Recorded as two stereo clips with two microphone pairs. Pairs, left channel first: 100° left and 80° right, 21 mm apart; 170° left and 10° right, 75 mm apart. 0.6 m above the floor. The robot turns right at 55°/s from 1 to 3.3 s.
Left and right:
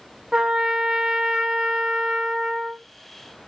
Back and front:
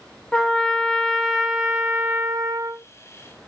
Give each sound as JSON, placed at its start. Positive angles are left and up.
{"t": 0.3, "sound": "a trumpet", "azimuth_deg": -115, "distance_m": 0.6}